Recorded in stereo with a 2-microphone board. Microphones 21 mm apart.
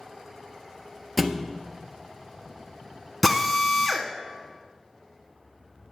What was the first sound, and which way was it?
A thud, 5° right (ahead or behind).